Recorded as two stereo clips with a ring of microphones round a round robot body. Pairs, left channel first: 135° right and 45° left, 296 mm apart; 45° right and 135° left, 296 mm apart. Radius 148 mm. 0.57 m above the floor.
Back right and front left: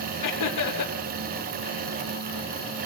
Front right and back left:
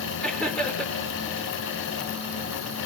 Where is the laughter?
130° right, 1.7 m.